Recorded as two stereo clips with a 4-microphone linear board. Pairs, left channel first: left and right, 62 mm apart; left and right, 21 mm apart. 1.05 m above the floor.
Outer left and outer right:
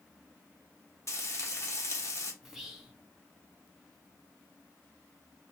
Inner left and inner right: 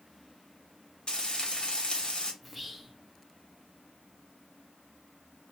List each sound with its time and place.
1.1 s frying: 50° left (ahead or behind), 1.0 m
2.4 s whispering: 5° right (ahead or behind), 1.0 m